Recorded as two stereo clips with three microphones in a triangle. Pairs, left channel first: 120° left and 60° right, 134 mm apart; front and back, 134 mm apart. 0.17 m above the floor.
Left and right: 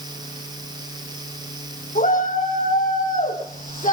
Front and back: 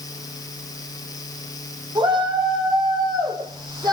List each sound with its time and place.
1.9 s a shout: 125° left, 9.5 m; by 3.9 s 120° left, 7.5 m